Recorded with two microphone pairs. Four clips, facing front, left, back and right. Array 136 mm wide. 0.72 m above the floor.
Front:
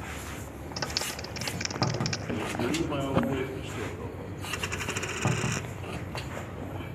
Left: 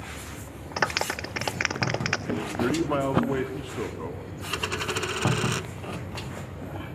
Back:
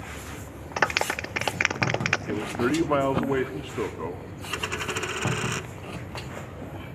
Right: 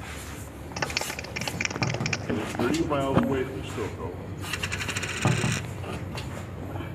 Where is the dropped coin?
120° left, 0.7 m.